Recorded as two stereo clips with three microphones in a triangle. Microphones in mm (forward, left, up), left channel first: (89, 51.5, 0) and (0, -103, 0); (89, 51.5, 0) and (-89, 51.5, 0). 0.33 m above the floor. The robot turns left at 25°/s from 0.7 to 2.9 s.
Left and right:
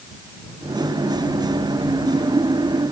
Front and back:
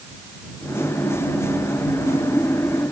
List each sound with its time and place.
Only background noise.